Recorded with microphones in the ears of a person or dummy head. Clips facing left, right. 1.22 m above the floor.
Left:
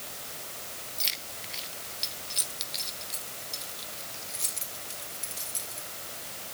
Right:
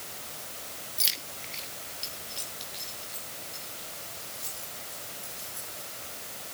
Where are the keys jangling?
10° right (ahead or behind), 1.4 m; by 5.9 s 50° left (ahead or behind), 5 m.